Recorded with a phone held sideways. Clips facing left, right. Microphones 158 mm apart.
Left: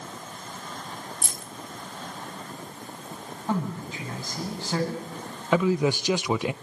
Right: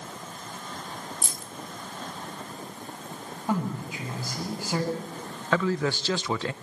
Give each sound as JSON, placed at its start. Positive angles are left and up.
{"t": 1.2, "sound": "keys jangling", "side_deg": 65, "distance_m": 1.1}
{"t": 3.5, "sound": "a man speaking", "side_deg": -10, "distance_m": 9.0}
{"t": 5.5, "sound": "a man speaking", "side_deg": 15, "distance_m": 0.6}